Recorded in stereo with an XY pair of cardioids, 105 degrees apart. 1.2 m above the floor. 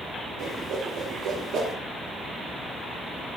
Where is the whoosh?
65° right, 0.6 m.